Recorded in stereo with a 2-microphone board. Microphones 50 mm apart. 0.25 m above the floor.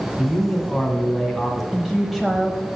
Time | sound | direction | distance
0.2 | a man speaking | 5° left (ahead or behind) | 2 m
1.7 | a woman speaking | 5° right (ahead or behind) | 1.0 m